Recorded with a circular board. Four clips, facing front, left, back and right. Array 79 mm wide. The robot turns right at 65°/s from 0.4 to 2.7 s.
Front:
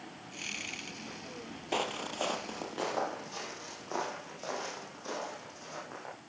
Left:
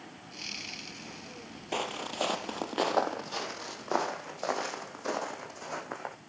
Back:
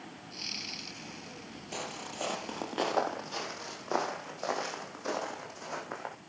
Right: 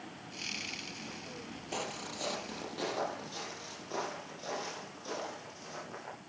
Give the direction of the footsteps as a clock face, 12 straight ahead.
11 o'clock.